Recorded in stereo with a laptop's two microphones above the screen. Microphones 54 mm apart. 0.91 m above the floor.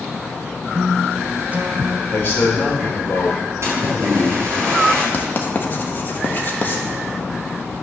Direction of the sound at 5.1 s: 40° left (ahead or behind).